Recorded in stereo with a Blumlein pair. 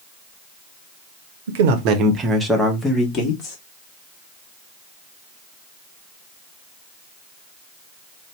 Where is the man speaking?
60° right, 0.8 m; by 3.6 s 25° left, 1.2 m.